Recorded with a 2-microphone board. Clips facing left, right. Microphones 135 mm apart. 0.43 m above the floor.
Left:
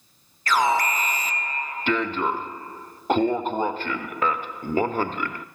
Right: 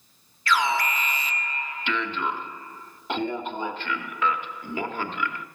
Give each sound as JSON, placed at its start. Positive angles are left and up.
{"t": 0.5, "sound": "an alarm", "side_deg": 40, "distance_m": 0.9}